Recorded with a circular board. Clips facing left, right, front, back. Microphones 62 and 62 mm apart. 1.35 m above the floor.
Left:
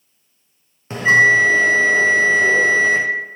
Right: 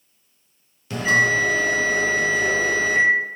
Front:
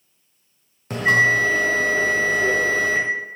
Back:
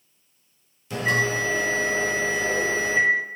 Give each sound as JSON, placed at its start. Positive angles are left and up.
{"t": 0.9, "sound": "a bell", "azimuth_deg": 35, "distance_m": 1.0}